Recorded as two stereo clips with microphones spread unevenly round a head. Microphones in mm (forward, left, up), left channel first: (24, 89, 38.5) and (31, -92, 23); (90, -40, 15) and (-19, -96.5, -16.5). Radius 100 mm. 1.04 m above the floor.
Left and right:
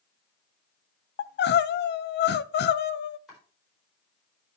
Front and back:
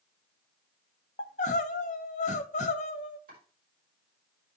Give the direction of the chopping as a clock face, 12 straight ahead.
6 o'clock.